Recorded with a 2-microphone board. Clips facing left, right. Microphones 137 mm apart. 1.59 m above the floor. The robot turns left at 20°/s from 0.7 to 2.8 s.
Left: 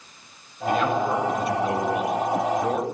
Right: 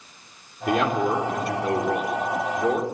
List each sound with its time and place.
0.7 s a man speaking: 95° right, 4.5 m; by 2.8 s 135° right, 4.5 m